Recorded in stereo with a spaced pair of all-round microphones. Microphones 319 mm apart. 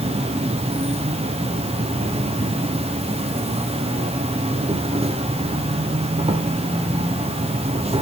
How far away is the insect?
About 0.9 m.